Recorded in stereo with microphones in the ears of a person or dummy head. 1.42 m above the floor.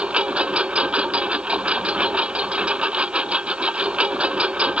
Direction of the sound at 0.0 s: 10° right (ahead or behind).